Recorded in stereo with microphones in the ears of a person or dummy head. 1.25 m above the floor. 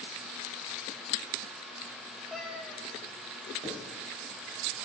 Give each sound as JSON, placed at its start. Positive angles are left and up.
{"t": 2.3, "sound": "a cat meowing", "side_deg": 0, "distance_m": 1.4}
{"t": 3.6, "sound": "writing", "side_deg": -30, "distance_m": 4.0}